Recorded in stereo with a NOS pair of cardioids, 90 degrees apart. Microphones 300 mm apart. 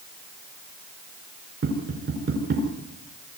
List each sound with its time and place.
1.6 s tapping: 40° right, 7 m